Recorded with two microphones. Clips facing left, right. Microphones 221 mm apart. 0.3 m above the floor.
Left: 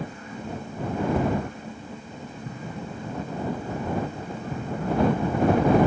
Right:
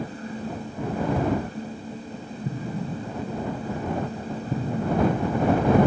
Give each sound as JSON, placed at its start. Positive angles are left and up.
{"t": 2.5, "sound": "an explosion", "side_deg": -30}